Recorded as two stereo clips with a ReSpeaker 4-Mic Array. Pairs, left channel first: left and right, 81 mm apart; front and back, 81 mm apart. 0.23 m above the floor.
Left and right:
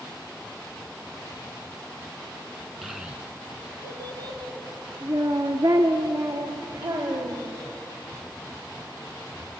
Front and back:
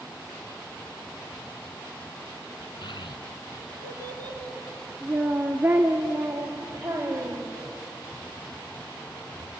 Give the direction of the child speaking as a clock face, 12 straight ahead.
12 o'clock.